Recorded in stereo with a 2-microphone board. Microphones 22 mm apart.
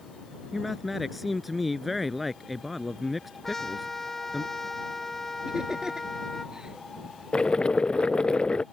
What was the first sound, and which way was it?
A man speaking, 5° right (ahead or behind).